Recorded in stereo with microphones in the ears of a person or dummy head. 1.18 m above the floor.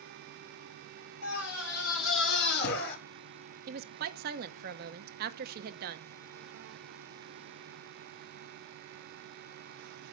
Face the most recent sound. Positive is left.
turn(degrees=-55)  # may be behind; listen again after turning